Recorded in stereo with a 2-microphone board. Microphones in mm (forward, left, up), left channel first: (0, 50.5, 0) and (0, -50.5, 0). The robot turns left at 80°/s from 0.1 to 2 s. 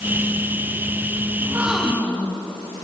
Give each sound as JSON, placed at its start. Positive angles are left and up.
{"t": 1.4, "sound": "a gasp", "azimuth_deg": -150, "distance_m": 3.0}